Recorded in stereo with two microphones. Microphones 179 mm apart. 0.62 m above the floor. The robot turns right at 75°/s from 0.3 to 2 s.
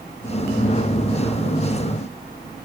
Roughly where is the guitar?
No guitar in this recording.